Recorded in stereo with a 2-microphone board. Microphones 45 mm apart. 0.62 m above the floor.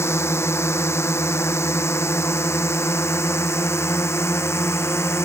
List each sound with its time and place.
0.0 s a drone: 80° left; by 5.3 s 85° left